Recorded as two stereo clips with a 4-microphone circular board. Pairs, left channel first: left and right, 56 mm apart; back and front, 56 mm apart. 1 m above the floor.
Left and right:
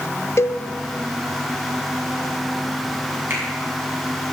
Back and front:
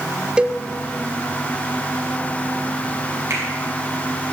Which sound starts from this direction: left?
A cowbell, at 0.4 s.